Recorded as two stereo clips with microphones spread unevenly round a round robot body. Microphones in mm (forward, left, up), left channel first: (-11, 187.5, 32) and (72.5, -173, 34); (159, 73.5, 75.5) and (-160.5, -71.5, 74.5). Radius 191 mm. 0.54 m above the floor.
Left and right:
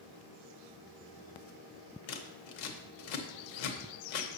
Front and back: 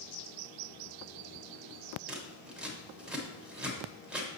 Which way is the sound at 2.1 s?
115° left.